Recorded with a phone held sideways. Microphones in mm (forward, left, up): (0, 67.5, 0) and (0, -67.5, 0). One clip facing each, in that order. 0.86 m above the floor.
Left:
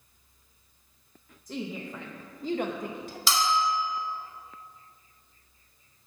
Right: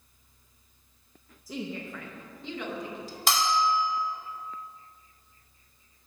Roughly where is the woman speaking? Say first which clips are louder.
Even; centre.